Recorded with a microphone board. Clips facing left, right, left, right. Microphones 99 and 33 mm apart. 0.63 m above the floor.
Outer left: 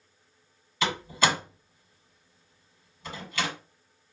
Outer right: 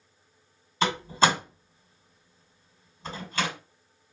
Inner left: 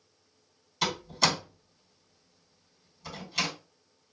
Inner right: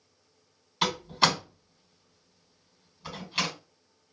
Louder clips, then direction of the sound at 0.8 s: Outer right 3 dB, inner right 3 dB; 30° right (ahead or behind).